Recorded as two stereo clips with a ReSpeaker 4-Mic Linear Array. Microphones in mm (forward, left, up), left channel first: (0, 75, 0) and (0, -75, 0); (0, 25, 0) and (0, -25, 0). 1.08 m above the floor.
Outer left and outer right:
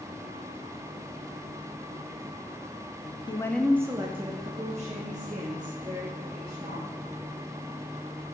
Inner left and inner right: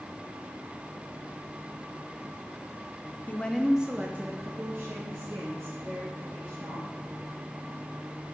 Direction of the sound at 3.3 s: 30° left (ahead or behind).